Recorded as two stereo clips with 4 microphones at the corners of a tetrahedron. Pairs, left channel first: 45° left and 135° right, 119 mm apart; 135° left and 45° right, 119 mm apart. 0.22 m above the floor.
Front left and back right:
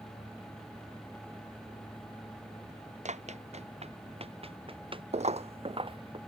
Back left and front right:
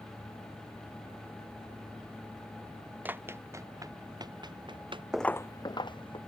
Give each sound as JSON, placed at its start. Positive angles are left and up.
{"t": 3.0, "sound": "running footsteps", "azimuth_deg": -120}
{"t": 5.1, "sound": "footsteps", "azimuth_deg": -130}